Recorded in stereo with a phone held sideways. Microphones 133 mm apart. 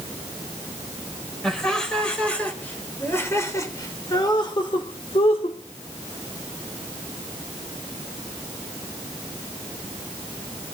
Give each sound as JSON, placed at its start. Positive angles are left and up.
{"t": 1.4, "sound": "laughter", "side_deg": 5, "distance_m": 4.0}